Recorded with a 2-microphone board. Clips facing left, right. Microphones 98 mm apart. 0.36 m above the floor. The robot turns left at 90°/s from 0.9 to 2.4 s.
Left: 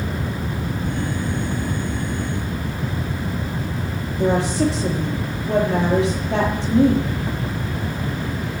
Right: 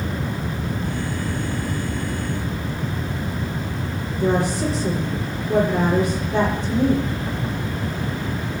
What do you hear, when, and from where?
4.2 s a woman speaking: 80° left, 9.5 m